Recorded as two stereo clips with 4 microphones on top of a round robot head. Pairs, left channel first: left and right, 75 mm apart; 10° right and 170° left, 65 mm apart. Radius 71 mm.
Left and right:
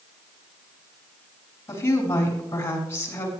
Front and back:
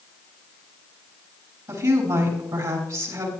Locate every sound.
1.7 s a woman speaking: 145° left, 6.5 m